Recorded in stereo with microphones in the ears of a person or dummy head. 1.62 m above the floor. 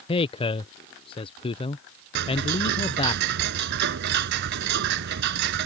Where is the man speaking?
25° left (ahead or behind).